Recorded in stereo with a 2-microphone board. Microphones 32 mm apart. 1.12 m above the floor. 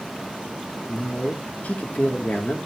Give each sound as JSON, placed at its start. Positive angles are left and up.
{"t": 0.9, "sound": "a man speaking", "side_deg": 60, "distance_m": 1.5}